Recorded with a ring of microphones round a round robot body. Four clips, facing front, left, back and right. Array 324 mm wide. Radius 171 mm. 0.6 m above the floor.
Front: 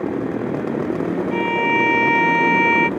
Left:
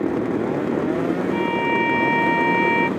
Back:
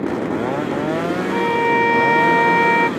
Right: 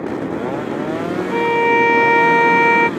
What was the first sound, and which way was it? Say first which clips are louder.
A violin: right 6 dB, back 4 dB; 110° right.